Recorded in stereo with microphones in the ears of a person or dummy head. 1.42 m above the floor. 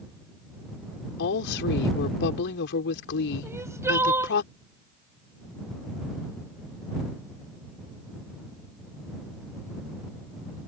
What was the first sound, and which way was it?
A woman speaking, 70° left (ahead or behind).